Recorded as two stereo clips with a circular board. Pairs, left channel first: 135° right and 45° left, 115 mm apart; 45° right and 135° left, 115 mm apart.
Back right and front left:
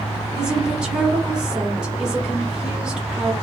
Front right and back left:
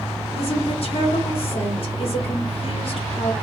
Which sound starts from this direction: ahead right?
A woman speaking, at 0.3 s.